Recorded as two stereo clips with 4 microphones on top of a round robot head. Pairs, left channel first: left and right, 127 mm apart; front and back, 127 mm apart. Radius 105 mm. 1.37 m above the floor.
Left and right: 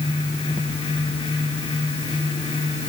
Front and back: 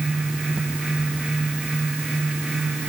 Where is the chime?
No chime in this recording.